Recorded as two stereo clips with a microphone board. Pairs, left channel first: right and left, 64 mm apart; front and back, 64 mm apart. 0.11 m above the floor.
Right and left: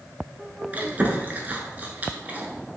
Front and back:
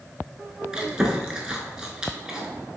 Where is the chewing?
115° left, 0.5 m.